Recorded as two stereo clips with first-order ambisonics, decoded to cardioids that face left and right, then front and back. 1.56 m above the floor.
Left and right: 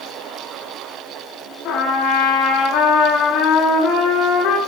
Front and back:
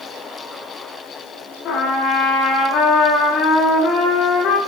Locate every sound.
1.6 s a trumpet: 55° left, 3.5 m